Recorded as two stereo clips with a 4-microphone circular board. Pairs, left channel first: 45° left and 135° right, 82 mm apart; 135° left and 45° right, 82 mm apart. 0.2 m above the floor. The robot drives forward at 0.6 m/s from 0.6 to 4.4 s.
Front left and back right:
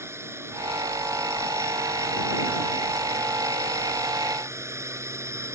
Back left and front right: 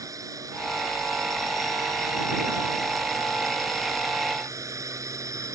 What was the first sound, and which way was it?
A drone, 85° right.